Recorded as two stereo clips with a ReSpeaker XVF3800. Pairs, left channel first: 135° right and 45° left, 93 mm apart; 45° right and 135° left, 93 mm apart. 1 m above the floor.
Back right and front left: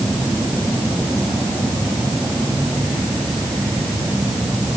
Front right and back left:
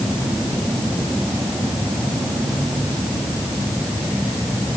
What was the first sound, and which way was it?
Only background noise.